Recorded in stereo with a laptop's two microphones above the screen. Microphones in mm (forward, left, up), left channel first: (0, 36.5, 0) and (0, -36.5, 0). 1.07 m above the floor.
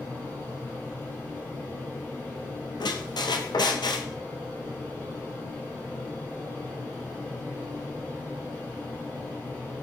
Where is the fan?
40° left (ahead or behind), 2 m.